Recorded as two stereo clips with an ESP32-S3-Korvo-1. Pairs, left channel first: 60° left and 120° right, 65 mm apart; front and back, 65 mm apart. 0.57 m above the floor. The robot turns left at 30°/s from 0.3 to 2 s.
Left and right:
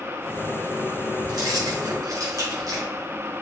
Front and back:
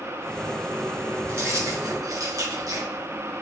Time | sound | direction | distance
1.3 | keys jangling | 125° right | 3.5 m